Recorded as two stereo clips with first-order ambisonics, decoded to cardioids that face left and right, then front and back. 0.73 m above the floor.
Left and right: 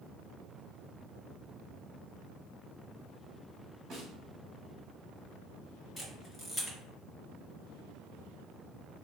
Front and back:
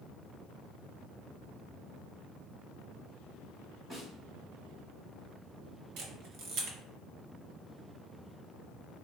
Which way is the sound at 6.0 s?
160° left.